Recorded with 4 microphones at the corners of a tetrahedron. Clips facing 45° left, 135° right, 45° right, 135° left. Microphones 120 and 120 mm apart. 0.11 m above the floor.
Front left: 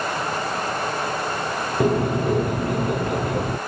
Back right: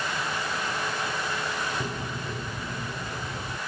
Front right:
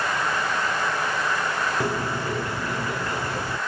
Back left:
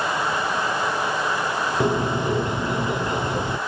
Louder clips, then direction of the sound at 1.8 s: Front left 14 dB, back left 5 dB; 65° left.